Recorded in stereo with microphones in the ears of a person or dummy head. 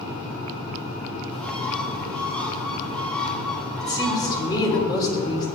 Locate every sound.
1.3 s a bird: 15° left (ahead or behind), 2 m
3.8 s a woman speaking: 30° left (ahead or behind), 3 m